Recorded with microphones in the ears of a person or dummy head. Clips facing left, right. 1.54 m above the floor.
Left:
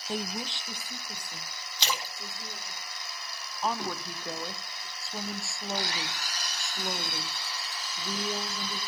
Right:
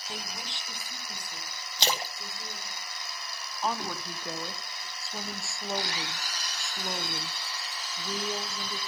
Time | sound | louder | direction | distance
0.1 | a woman speaking | left 8 dB | 45° left (ahead or behind) | 0.7 m
1.8 | a splash | right 3 dB | 35° right (ahead or behind) | 1.0 m
3.6 | a woman speaking | left 1 dB | centre (ahead or behind) | 0.6 m